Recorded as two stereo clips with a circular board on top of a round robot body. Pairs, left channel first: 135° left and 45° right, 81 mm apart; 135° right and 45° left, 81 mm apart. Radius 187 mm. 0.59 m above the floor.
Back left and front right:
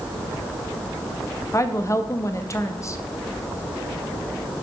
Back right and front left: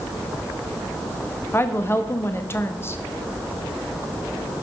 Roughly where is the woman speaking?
Behind.